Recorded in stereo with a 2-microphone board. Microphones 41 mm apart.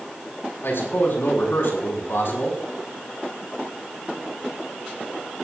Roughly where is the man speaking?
Left.